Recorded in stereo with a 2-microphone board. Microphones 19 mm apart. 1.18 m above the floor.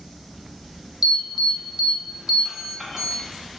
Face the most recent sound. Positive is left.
turn(degrees=-20)  # may be behind; listen again after turning